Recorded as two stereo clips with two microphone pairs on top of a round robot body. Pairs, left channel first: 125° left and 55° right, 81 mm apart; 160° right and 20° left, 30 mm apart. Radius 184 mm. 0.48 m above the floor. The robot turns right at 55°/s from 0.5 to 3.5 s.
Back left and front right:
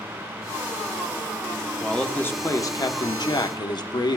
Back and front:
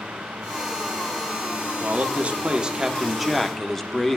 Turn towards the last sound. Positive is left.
turn(degrees=135)